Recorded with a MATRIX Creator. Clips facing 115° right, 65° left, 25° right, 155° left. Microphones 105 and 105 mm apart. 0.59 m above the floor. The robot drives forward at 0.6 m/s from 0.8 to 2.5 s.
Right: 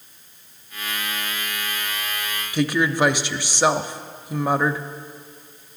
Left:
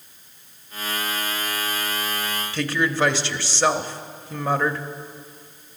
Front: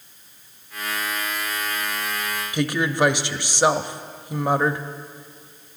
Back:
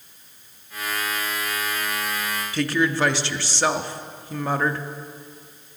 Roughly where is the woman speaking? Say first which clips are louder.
Right 3 dB, even; ahead right.